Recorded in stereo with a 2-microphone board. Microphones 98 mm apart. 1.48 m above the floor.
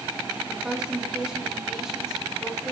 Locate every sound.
0.5 s a woman speaking: 10° right (ahead or behind), 3 m; by 2.7 s centre (ahead or behind), 4 m